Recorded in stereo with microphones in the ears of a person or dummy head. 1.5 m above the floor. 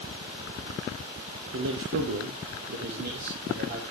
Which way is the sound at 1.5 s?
75° right (ahead or behind).